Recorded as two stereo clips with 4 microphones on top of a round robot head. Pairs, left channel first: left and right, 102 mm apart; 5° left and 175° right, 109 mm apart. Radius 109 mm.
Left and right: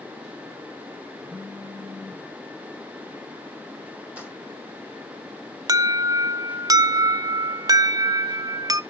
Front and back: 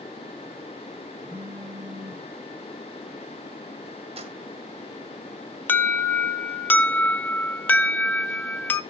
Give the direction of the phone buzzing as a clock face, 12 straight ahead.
6 o'clock.